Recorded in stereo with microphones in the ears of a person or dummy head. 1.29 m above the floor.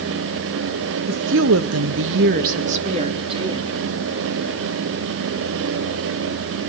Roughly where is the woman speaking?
Right.